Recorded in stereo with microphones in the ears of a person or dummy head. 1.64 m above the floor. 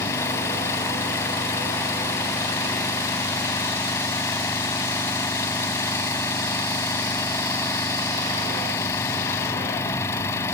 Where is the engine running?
10° left (ahead or behind).